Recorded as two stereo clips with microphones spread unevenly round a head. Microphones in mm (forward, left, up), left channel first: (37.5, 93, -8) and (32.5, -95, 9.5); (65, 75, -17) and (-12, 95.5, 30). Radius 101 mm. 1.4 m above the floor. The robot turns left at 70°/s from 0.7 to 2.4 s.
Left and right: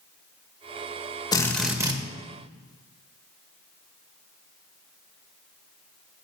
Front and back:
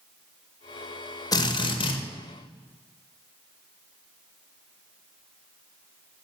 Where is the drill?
20° left, 2 m; by 2.0 s 30° right, 2 m.